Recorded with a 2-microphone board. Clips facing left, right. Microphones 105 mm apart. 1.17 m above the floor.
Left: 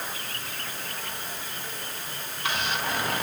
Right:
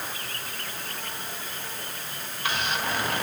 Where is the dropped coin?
I don't hear a dropped coin.